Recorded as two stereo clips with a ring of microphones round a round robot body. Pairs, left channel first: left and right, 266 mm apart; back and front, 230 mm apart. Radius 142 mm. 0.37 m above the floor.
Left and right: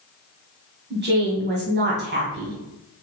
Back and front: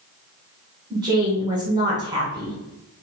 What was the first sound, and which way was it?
A woman speaking, 65° right.